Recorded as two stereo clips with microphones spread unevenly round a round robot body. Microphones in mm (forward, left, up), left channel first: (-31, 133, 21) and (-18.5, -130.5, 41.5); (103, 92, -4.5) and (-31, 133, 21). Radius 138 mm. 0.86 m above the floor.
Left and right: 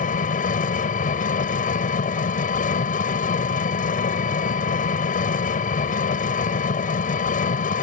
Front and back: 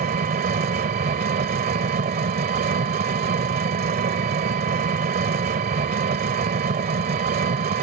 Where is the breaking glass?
No breaking glass in this recording.